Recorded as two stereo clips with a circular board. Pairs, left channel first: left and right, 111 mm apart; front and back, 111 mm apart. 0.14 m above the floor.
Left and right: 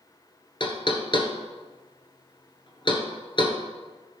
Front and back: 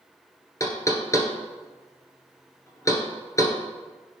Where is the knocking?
60° left, 1.3 m.